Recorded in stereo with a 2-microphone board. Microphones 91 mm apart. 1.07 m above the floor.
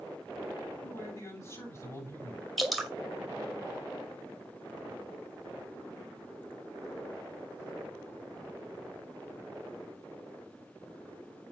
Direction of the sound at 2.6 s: Centre (ahead or behind).